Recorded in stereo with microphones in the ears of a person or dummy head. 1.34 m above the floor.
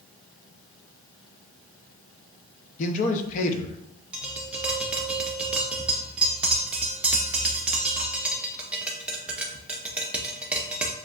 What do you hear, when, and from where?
2.8 s a man speaking: 45° left (ahead or behind), 0.6 m
4.1 s tapping: 5° right (ahead or behind), 0.5 m